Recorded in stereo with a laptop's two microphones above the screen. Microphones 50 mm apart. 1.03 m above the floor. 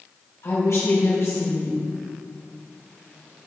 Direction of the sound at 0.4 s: 70° left (ahead or behind).